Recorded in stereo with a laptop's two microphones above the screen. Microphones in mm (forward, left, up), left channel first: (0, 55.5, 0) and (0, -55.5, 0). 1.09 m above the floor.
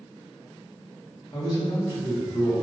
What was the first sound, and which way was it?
A man speaking, 35° left (ahead or behind).